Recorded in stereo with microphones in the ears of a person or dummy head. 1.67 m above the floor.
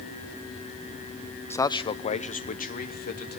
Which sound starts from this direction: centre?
A man speaking, at 1.5 s.